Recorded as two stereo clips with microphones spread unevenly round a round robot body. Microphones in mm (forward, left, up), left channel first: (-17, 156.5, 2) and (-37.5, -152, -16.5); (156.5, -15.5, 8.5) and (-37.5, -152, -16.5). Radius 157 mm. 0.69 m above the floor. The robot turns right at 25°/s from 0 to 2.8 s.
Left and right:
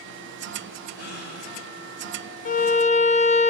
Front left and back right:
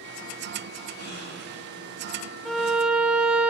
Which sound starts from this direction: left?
A gasp, at 0.9 s.